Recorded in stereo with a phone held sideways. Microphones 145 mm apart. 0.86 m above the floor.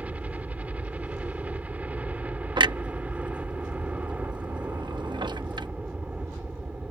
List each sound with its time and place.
0.0 s a helicopter: 10° right (ahead or behind)
2.6 s a clunk: 30° right (ahead or behind)